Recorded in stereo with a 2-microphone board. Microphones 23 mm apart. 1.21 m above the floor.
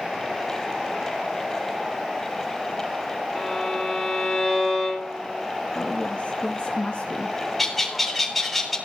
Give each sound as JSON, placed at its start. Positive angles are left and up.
{"t": 3.4, "sound": "a violin", "side_deg": 10, "distance_m": 5.5}
{"t": 5.8, "sound": "a woman speaking", "side_deg": 45, "distance_m": 1.9}
{"t": 7.6, "sound": "a bird", "side_deg": 5, "distance_m": 3.5}